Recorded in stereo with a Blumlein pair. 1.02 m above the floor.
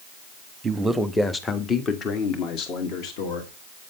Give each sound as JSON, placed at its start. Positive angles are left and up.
{"t": 0.6, "sound": "a man speaking", "azimuth_deg": -15, "distance_m": 1.0}